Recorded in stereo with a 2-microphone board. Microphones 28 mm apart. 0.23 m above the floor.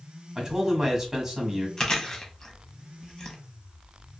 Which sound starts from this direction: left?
Chewing, at 1.8 s.